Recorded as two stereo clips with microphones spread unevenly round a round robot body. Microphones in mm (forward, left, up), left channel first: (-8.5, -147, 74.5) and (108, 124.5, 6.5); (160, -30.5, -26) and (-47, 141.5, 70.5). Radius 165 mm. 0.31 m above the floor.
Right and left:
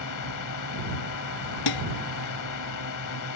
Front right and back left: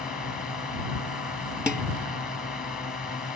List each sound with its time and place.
0.0 s a drone: 115° right
1.7 s dishes clattering: 130° right